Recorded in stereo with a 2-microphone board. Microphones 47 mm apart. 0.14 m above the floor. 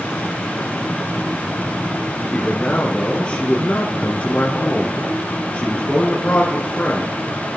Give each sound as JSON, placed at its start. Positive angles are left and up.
{"t": 2.3, "sound": "a man speaking", "side_deg": 25, "distance_m": 2.0}